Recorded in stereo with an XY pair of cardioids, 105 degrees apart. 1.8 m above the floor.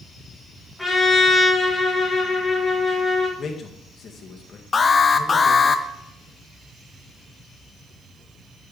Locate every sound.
0.8 s a trumpet: 5° left, 3 m
3.4 s a man speaking: 45° left, 2 m
4.7 s an alarm: 30° left, 0.7 m